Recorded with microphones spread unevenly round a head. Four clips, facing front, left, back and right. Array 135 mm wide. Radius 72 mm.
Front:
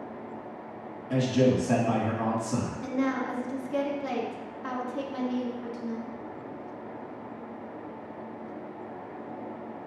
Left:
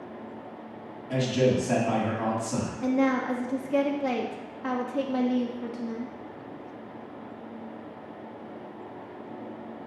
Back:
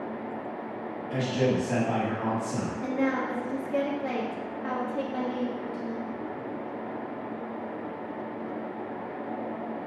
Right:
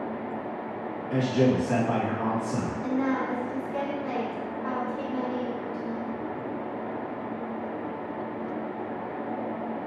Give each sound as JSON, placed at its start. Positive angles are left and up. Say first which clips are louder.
{"t": 1.1, "sound": "a man speaking", "louder": "right 1 dB, front 3 dB", "azimuth_deg": 25, "distance_m": 2.5}
{"t": 2.8, "sound": "a woman speaking", "louder": "left 4 dB, back 3 dB", "azimuth_deg": 85, "distance_m": 0.8}